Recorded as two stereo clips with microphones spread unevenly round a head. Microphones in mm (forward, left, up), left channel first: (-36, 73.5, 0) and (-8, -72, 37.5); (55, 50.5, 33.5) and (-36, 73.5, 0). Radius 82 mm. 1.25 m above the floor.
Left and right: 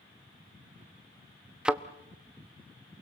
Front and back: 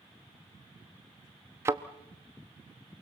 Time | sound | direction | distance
1.6 | a thud | 110° right | 0.6 m